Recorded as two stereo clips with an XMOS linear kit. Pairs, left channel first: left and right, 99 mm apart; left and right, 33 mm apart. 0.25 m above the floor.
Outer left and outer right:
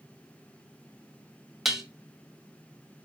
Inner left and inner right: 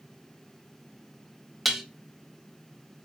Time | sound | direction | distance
1.6 | dishes clattering | 5° right (ahead or behind) | 0.6 m